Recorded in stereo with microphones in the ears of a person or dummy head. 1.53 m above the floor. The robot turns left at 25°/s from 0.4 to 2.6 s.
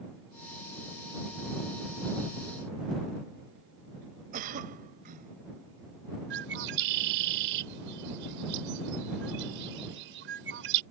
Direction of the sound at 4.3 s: 50° right (ahead or behind).